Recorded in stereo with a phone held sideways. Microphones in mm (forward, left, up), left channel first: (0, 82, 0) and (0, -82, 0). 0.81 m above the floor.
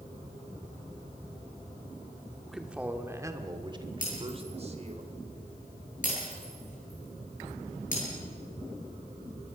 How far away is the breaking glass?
About 10 m.